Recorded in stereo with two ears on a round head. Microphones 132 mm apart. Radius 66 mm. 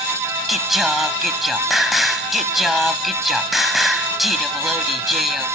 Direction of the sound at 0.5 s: Centre (ahead or behind).